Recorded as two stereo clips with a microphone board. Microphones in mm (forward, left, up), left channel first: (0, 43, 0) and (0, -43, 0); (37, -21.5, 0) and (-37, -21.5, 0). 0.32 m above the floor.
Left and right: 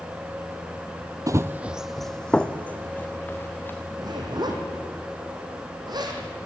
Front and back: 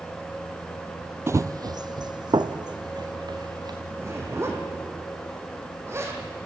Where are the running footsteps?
130° right, 0.5 m; by 3.8 s 155° left, 2 m.